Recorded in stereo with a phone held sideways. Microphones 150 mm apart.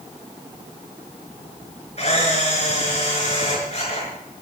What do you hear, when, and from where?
2.0 s a camera shutter: 45° left (ahead or behind), 6.5 m